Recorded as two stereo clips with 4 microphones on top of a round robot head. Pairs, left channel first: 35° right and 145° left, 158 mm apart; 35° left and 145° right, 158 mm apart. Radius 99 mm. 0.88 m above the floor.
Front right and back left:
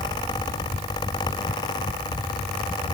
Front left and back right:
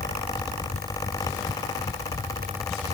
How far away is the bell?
I don't hear a bell.